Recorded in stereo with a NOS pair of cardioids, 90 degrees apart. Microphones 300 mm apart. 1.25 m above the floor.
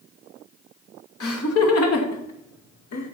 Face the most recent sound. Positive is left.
turn(degrees=80)